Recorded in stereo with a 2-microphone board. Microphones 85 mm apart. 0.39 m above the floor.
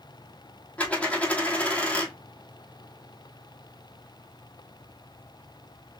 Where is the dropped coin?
15° left (ahead or behind), 1.2 m.